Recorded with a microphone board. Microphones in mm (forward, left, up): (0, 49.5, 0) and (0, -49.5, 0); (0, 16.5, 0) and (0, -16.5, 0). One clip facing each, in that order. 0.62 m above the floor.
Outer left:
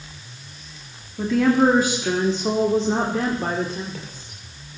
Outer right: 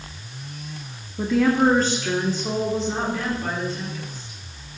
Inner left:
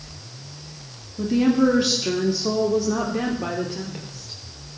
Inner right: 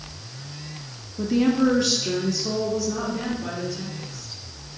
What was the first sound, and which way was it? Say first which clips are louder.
A woman speaking: outer left 1 dB, inner left 2 dB; 5° right (ahead or behind).